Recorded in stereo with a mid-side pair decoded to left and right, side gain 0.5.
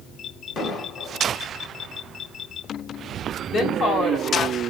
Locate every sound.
0.6 s an explosion: 60° left, 1.3 m
3.5 s a woman speaking: 55° left, 1.1 m